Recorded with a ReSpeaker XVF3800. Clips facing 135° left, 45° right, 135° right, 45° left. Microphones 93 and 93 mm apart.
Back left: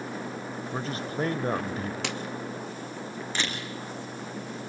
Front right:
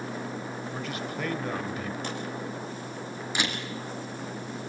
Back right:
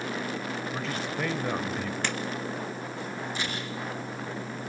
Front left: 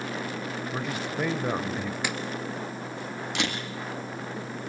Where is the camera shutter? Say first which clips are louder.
Front right 2 dB, front left 7 dB; 35° left, 3.5 m.